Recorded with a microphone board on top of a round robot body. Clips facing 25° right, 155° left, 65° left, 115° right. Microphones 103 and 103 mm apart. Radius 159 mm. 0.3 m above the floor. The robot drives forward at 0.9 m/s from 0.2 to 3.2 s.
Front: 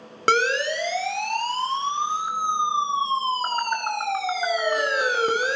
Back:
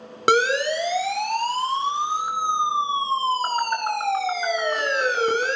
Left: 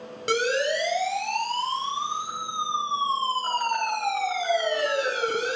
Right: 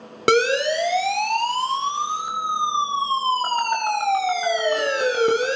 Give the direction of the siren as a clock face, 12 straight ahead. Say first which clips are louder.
Back 2 dB, right 6 dB; 4 o'clock.